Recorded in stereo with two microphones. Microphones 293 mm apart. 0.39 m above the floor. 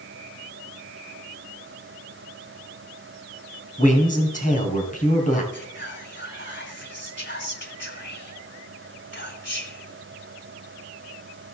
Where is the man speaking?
25° left (ahead or behind), 3.5 m.